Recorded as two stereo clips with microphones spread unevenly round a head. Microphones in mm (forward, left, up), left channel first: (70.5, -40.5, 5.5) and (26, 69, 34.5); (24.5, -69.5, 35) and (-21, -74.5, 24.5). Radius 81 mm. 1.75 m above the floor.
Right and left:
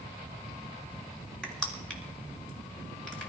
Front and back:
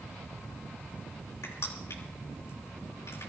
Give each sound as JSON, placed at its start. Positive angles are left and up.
{"t": 1.4, "sound": "crushing", "azimuth_deg": 20, "distance_m": 3.5}